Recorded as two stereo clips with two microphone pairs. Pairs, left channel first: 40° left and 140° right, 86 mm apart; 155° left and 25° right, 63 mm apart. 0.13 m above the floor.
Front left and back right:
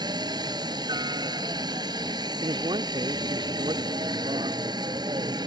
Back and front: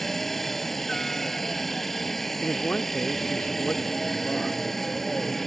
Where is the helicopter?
120° right.